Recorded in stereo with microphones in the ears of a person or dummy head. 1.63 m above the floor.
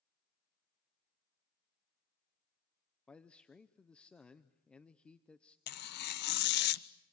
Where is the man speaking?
5° left (ahead or behind), 0.7 m.